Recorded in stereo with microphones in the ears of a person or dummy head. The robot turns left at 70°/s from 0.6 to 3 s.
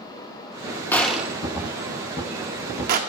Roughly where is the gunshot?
Centre.